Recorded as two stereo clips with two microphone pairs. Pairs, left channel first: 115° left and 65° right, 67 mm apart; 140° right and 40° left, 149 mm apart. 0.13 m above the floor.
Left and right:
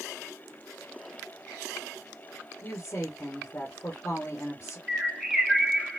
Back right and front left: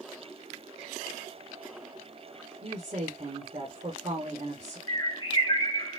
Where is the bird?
150° right, 1.2 m.